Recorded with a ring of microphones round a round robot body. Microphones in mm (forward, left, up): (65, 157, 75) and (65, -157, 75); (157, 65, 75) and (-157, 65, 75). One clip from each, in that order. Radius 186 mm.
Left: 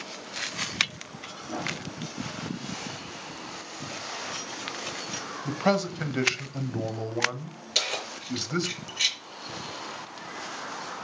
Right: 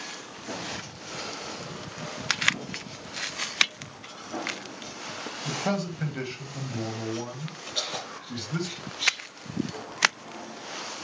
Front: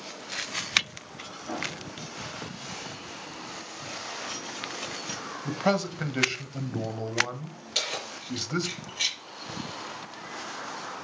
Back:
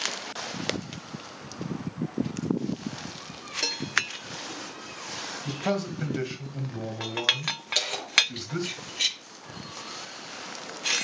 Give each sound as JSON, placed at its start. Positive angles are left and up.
{"t": 5.5, "sound": "a man speaking", "azimuth_deg": 50, "distance_m": 1.8}
{"t": 7.8, "sound": "keys jangling", "azimuth_deg": 110, "distance_m": 5.5}